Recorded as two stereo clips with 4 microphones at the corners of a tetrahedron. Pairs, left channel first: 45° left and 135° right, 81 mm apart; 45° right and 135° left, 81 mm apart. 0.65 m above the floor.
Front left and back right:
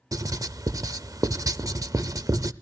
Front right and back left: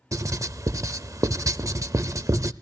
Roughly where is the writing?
Behind.